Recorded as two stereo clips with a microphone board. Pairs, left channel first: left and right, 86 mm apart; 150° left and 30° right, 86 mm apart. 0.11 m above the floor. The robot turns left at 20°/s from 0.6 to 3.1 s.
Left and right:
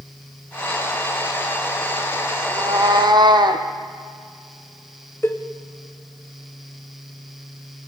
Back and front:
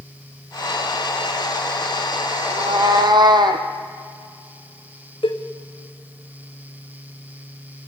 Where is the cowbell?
150° left, 2.5 m.